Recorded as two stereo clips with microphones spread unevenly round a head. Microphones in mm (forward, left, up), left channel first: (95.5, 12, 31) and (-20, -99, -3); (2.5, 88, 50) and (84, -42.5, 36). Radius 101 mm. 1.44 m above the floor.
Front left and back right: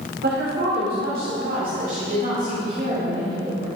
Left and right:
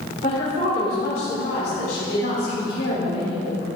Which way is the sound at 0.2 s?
Straight behind.